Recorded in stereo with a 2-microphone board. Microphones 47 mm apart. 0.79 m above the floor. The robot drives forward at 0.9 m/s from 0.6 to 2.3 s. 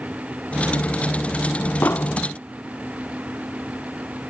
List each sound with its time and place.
1.8 s an explosion: 55° left (ahead or behind), 0.5 m; by 2.2 s 35° left (ahead or behind), 0.7 m